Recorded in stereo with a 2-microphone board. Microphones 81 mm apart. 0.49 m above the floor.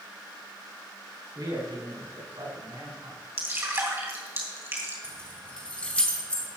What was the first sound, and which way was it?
A man speaking, 60° right (ahead or behind).